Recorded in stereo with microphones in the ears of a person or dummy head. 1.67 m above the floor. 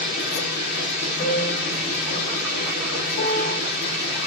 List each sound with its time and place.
0.0 s a machine running: 65° left (ahead or behind), 0.8 m
1.2 s a piano: 30° left (ahead or behind), 0.5 m
3.2 s a piano: 55° left (ahead or behind), 0.8 m